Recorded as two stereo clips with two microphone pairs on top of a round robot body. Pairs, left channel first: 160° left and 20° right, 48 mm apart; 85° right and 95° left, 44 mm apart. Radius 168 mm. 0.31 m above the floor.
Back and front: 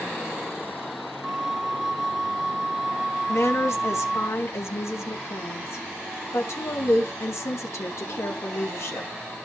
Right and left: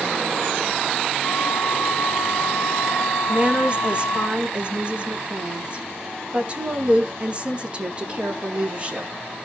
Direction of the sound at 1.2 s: 105° right.